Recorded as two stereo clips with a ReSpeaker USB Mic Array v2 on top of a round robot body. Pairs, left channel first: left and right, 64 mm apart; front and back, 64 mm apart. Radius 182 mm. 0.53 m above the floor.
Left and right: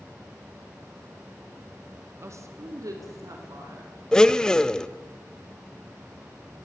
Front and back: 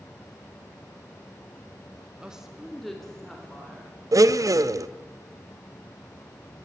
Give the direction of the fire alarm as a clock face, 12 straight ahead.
No fire alarm in this recording.